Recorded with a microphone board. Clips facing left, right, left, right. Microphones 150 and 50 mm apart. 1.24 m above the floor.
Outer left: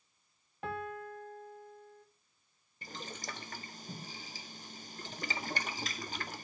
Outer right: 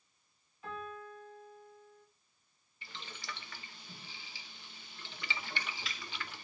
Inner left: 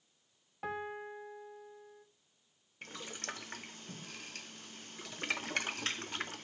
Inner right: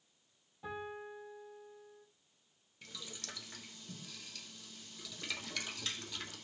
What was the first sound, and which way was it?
A piano, 70° left (ahead or behind).